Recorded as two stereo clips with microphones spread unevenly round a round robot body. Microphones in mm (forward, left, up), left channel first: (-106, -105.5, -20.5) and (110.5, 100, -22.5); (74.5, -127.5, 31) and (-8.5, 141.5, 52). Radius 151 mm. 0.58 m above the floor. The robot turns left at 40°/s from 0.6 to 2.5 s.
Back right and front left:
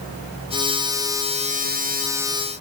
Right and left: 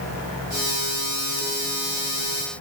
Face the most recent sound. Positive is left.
No sound to turn to.